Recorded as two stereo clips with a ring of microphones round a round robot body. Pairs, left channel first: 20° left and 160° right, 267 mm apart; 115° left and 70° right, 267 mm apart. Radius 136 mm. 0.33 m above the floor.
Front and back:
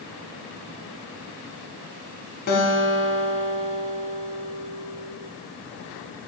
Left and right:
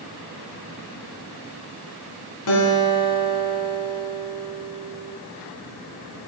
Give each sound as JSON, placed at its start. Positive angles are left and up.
{"t": 2.5, "sound": "a guitar", "azimuth_deg": 75, "distance_m": 1.6}